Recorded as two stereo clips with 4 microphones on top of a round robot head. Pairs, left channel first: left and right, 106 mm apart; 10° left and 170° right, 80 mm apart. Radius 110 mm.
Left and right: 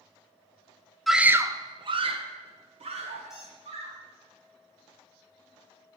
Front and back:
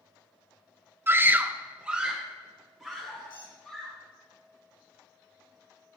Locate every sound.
1.1 s a scream: straight behind, 0.7 m; by 4.0 s 80° right, 3 m
3.3 s a squeak: 5° right, 4.5 m